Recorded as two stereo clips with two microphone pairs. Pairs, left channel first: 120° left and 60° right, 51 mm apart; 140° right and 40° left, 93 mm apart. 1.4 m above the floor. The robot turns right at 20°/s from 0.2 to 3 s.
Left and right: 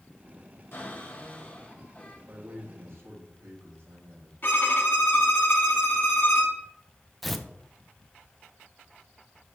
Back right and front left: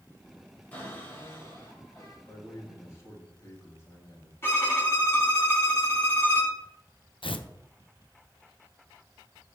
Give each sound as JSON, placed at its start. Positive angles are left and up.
{"t": 0.7, "sound": "a cupboard door", "azimuth_deg": 150, "distance_m": 4.5}
{"t": 2.3, "sound": "a man speaking", "azimuth_deg": -95, "distance_m": 3.5}
{"t": 4.4, "sound": "a violin", "azimuth_deg": 165, "distance_m": 3.0}
{"t": 7.2, "sound": "tearing paper", "azimuth_deg": -150, "distance_m": 0.7}